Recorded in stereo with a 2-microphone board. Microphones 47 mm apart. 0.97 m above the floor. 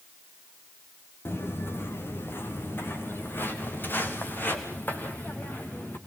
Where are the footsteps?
60° left (ahead or behind), 2 m; by 6.0 s 40° left (ahead or behind), 4.5 m.